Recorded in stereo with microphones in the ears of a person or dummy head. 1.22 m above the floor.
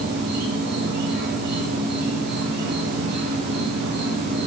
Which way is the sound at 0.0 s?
55° right (ahead or behind).